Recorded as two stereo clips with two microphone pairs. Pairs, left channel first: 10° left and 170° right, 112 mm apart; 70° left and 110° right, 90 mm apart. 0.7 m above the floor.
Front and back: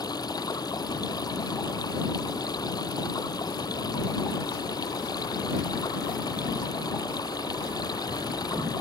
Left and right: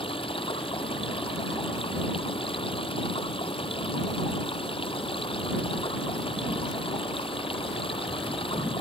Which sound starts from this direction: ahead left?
Running water, at 0.0 s.